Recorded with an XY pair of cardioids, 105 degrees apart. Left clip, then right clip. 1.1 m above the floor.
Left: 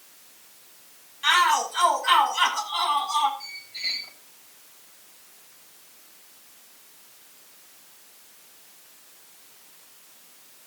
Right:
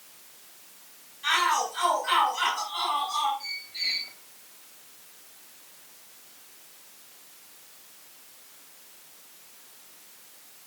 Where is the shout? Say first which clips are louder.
Left 4 dB; 60° left, 7 m.